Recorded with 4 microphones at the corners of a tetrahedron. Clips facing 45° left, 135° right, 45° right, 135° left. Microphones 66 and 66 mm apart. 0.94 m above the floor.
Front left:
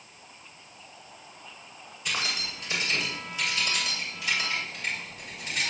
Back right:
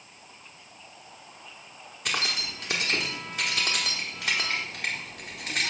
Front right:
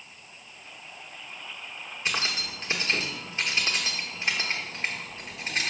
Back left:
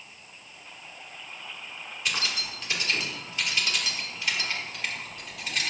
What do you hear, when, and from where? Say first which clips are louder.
2.0 s keys jangling: back right 1 dB, front right 1 dB; 105° right, 1.7 m